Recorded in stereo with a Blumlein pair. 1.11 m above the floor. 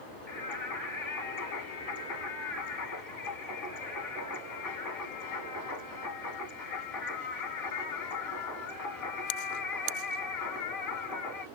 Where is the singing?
35° left, 1.8 m.